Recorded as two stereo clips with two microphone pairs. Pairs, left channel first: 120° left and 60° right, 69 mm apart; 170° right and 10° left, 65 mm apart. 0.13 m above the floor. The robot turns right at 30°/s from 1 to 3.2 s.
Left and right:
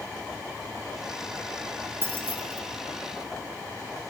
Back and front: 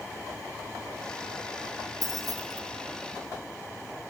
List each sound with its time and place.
2.0 s keys jangling: 5° right, 4 m; by 2.6 s 15° left, 4 m